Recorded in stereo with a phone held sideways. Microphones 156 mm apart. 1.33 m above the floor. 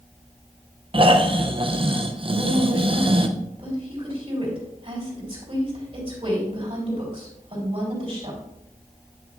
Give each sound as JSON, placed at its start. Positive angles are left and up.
{"t": 0.9, "sound": "snoring", "side_deg": -40, "distance_m": 0.6}
{"t": 2.3, "sound": "a woman speaking", "side_deg": -45, "distance_m": 3.5}